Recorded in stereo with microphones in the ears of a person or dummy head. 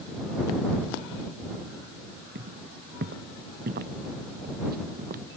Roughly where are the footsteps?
Right.